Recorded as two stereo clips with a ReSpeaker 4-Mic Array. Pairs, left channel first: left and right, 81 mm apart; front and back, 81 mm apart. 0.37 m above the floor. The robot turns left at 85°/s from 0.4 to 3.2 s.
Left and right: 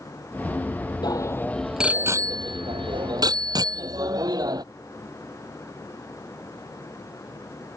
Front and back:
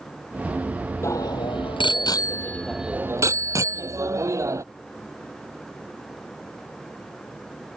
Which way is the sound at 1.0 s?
55° left.